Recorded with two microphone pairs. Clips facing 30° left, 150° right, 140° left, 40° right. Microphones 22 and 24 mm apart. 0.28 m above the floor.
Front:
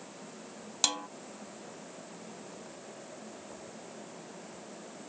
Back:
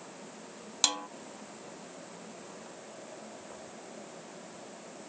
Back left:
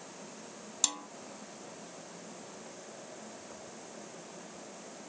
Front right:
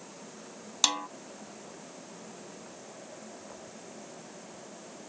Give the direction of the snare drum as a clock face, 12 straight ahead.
2 o'clock.